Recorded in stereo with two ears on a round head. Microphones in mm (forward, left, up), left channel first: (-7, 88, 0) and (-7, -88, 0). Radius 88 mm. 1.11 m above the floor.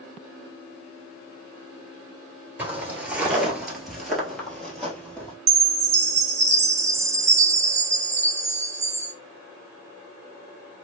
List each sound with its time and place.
2.6 s footsteps: 10° right (ahead or behind), 1.1 m; by 5.3 s 5° left (ahead or behind), 1.5 m
5.5 s a chime: 35° right (ahead or behind), 1.0 m